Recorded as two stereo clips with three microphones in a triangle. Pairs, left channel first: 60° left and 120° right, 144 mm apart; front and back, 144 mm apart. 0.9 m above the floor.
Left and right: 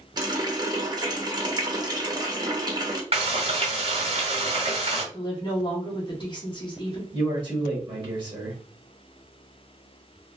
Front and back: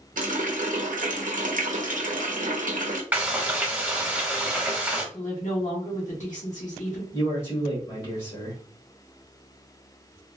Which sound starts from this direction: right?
Frying, at 3.1 s.